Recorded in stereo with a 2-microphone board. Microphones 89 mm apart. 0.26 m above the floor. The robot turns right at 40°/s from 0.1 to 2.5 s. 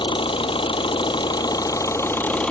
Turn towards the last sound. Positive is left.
turn(degrees=170)